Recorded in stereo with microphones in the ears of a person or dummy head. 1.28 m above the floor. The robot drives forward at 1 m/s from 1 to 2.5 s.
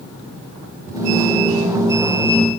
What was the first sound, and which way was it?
Only background noise.